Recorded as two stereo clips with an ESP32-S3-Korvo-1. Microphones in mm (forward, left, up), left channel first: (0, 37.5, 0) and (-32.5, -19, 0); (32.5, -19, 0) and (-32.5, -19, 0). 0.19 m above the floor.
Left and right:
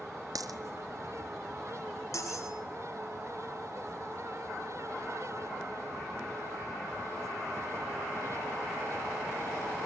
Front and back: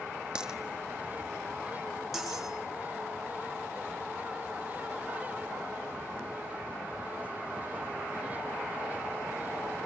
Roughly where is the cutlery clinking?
Left.